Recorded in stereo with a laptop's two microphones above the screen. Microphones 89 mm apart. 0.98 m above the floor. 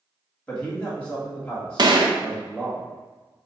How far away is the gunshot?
About 0.5 m.